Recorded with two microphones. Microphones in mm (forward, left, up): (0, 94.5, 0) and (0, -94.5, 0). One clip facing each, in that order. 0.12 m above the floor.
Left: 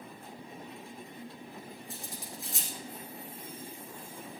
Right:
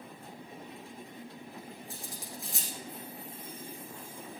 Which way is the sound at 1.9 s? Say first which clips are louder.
Even; centre (ahead or behind).